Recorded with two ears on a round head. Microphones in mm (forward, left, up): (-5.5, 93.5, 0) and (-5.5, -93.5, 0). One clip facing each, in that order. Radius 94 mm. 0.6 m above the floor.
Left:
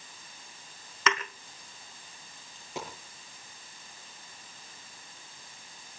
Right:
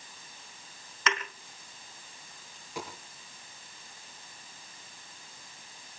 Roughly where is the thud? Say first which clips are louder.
Left 3 dB; left.